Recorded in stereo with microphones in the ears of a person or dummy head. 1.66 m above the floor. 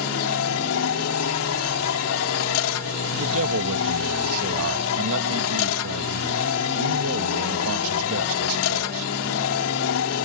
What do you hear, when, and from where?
0.0 s a machine running: 80° left
3.1 s a man speaking: 70° right (ahead or behind)